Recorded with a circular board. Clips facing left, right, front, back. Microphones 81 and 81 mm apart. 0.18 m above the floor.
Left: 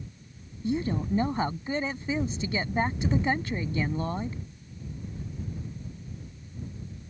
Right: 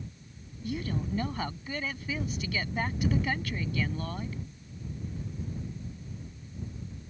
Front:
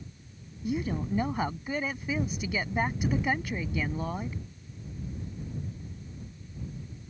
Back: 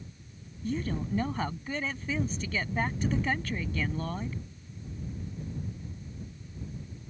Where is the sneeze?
I don't hear a sneeze.